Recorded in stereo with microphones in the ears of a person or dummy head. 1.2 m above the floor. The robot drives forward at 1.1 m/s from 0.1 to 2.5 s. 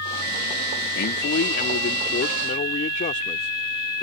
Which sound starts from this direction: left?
A man speaking, at 0.9 s.